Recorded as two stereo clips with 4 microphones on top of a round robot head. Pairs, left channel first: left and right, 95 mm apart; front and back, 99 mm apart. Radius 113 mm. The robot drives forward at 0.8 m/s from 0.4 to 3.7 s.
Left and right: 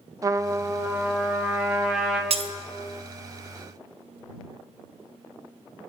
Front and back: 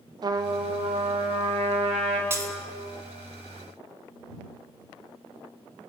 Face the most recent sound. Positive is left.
turn(degrees=-160)